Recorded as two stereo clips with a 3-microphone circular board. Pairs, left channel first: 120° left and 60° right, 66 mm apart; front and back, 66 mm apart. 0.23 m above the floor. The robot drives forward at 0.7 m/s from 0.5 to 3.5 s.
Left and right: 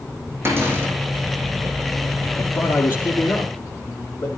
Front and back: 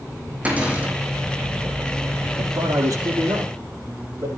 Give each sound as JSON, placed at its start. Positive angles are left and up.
{"t": 0.5, "sound": "a cupboard door", "azimuth_deg": -110, "distance_m": 5.0}
{"t": 2.4, "sound": "a man speaking", "azimuth_deg": 175, "distance_m": 5.0}